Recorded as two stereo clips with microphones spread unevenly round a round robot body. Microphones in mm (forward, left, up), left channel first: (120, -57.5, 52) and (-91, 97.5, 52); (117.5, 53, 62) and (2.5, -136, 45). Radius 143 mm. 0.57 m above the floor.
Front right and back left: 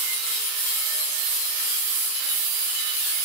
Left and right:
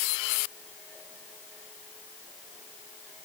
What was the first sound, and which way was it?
Only background noise.